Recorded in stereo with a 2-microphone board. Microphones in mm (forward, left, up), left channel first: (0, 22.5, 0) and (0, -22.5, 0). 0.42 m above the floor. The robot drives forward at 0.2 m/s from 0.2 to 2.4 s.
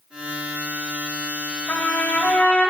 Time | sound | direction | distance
1.7 | a trumpet | 35° left (ahead or behind) | 2 m